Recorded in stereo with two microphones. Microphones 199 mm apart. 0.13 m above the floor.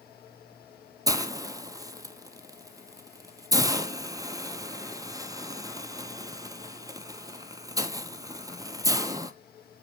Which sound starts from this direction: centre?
A hiss, at 1.1 s.